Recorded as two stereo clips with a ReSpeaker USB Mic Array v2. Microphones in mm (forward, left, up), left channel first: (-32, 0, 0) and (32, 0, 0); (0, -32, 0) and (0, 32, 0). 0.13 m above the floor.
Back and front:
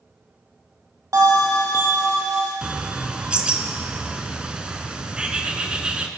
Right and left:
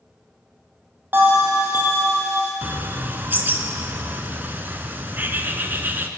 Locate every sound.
1.1 s a bell: 35° left, 1.6 m
2.6 s a bird: 65° left, 0.5 m